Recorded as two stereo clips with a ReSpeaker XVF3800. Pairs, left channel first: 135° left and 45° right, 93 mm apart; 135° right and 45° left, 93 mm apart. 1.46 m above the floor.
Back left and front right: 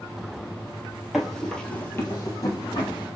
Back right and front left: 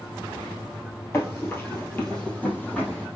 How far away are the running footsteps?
About 1.6 m.